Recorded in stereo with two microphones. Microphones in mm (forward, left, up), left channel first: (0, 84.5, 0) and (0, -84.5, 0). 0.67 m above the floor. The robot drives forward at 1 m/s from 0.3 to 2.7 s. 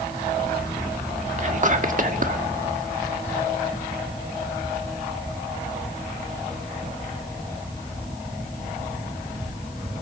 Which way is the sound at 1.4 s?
45° right (ahead or behind).